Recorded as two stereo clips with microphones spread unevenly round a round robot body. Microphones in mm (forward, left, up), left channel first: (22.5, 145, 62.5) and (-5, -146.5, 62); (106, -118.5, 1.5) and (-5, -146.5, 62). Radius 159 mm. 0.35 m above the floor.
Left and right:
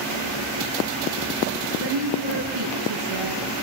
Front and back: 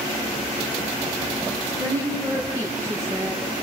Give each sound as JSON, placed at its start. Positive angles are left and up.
{"t": 1.6, "sound": "a woman speaking", "azimuth_deg": -105, "distance_m": 6.5}